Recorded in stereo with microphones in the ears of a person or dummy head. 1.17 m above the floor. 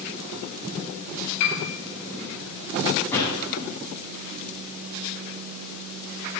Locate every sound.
1.4 s a piano: 80° left, 4.5 m
3.1 s a door slam: 15° left (ahead or behind), 5.5 m